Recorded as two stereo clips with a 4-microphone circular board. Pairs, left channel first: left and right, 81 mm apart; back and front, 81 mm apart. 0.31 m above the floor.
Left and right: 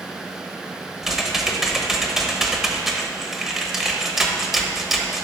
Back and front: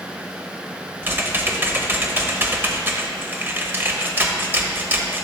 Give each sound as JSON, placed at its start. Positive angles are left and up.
{"t": 1.0, "sound": "typing on a keyboard", "azimuth_deg": -10, "distance_m": 0.9}